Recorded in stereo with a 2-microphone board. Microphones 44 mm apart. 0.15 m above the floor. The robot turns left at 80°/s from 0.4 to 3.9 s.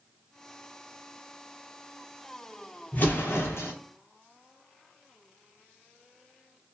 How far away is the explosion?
About 0.9 m.